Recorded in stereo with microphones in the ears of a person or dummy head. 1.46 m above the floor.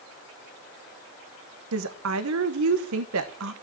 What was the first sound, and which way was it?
A woman speaking, 65° right (ahead or behind).